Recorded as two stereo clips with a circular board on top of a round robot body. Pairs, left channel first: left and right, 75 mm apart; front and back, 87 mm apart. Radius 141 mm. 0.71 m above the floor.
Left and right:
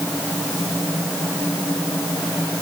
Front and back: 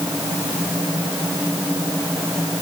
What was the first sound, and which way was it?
Only background noise.